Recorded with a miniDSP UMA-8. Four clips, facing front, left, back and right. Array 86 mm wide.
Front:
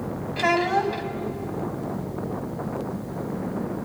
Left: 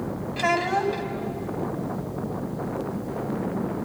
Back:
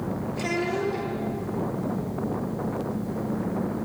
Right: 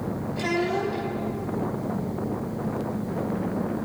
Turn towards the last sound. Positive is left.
turn(degrees=35)